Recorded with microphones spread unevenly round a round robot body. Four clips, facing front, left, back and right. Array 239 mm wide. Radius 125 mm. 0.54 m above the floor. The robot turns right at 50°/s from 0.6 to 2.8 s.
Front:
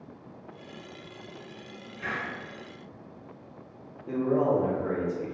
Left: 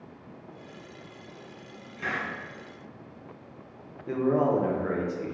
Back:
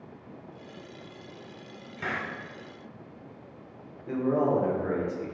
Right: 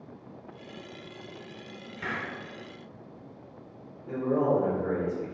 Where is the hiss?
175° right, 1.0 m; by 2.3 s 160° right, 1.0 m.